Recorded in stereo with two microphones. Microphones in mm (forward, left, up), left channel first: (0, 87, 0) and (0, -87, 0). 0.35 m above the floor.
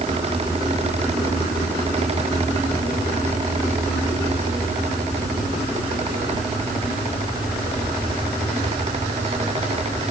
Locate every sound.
Only background noise.